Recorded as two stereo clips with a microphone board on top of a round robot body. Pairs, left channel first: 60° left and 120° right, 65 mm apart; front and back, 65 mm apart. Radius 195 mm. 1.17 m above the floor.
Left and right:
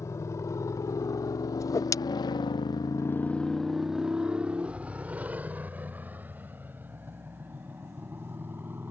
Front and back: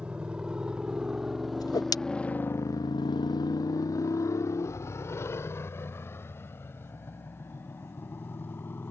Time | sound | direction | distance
0.0 | a motorcycle | 105° left | ?
1.6 | a whoosh | 20° left | ?